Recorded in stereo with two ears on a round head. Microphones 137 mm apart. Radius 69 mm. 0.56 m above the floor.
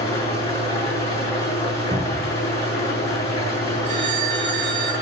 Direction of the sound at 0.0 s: 20° left (ahead or behind).